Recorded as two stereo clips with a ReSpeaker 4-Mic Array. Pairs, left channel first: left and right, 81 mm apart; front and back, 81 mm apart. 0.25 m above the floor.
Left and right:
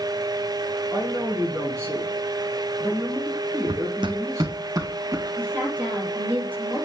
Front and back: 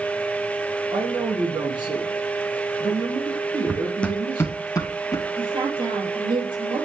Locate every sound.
0.9 s a man speaking: 150° right, 6 m
3.7 s running footsteps: 105° right, 0.8 m; by 5.3 s 40° right, 2.0 m
5.4 s a woman speaking: 160° right, 5.5 m